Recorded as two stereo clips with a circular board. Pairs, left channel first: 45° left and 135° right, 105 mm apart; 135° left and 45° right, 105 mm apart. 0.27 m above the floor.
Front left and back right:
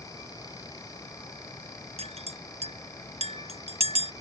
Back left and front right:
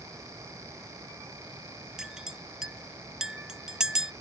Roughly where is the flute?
I don't hear a flute.